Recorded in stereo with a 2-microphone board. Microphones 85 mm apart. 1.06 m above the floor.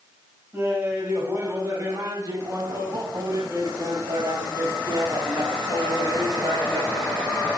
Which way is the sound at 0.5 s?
25° right (ahead or behind).